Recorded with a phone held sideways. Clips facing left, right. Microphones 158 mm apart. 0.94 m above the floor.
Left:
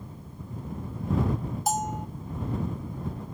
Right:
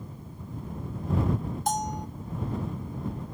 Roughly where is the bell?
Centre.